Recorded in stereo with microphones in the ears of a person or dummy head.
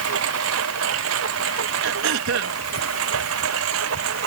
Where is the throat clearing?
65° right (ahead or behind).